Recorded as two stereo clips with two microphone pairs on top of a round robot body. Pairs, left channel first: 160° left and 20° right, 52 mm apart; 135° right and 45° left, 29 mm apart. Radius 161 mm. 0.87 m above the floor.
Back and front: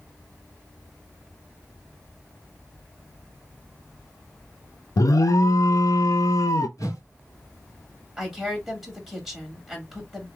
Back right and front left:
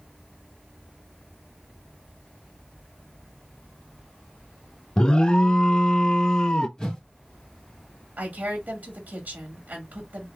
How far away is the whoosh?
About 1.9 m.